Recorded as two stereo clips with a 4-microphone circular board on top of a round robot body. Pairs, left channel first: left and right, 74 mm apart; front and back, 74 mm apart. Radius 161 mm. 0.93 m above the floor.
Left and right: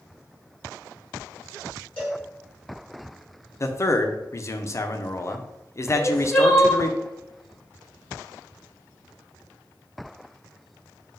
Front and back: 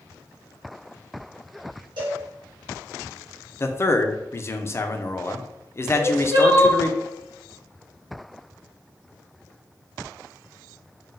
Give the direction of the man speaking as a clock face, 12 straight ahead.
10 o'clock.